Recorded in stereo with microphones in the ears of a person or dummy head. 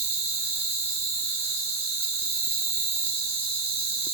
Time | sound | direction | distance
0.0 | an insect | 20° right (ahead or behind) | 2.0 m